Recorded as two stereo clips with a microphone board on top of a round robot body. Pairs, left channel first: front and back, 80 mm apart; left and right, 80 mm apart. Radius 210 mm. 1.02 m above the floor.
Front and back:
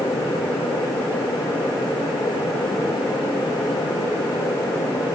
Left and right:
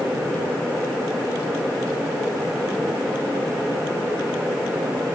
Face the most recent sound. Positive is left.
No sound to turn to.